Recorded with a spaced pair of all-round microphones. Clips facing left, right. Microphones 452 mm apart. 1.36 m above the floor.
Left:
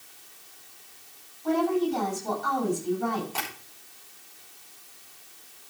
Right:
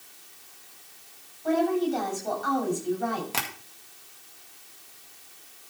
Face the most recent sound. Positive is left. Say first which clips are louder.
# right 1 dB
turn(degrees=-90)